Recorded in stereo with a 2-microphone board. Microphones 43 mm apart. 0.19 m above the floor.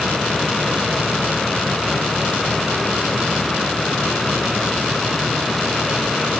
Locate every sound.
Only background noise.